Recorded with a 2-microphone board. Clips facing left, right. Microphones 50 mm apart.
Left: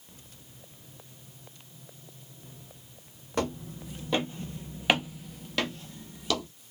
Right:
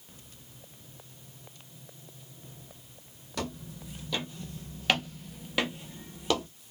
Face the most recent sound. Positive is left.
turn(degrees=-25)  # may be behind; listen again after turning